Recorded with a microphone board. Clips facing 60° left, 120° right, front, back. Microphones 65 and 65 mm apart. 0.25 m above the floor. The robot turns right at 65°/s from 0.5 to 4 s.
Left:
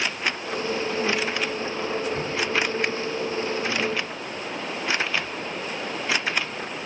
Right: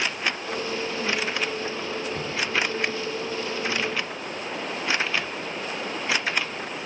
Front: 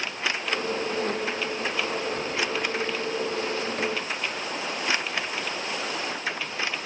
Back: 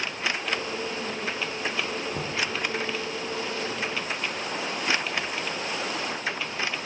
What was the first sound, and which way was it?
Knocking, 160° left.